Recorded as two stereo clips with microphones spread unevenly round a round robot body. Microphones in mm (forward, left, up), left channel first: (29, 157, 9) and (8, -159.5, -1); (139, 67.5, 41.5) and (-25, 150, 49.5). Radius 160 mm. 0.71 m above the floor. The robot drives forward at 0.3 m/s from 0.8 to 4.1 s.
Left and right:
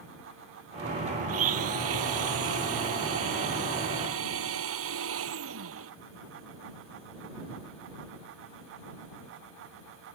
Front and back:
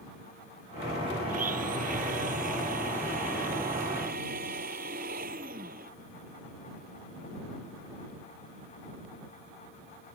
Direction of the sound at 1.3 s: 145° right.